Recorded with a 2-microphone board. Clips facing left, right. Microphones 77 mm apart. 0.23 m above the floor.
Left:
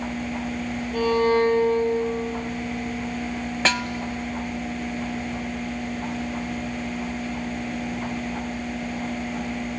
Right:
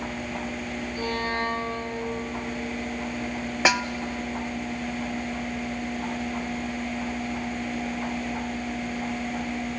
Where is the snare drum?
15° right (ahead or behind), 0.5 m.